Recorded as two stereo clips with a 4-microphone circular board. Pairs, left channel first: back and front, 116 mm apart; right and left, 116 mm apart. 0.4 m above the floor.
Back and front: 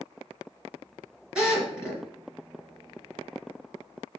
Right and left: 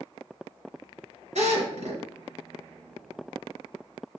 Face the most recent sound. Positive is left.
turn(degrees=80)